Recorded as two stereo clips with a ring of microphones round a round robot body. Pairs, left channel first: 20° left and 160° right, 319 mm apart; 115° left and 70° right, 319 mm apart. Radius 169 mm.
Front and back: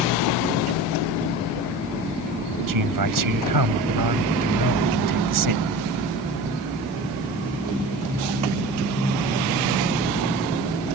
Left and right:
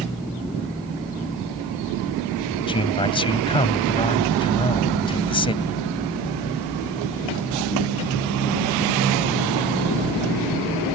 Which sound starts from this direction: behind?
A man speaking, at 2.7 s.